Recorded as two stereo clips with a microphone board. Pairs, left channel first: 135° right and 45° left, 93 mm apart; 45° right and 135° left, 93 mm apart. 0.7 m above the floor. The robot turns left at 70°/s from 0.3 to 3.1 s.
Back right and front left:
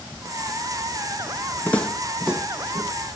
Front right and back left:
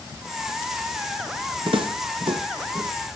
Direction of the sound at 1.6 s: 155° left.